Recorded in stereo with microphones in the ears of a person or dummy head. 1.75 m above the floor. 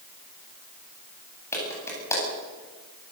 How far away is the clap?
About 9.5 m.